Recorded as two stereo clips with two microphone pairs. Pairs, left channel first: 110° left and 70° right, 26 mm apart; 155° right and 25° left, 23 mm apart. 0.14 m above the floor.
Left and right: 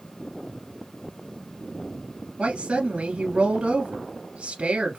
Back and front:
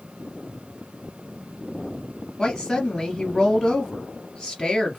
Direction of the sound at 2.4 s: 100° right.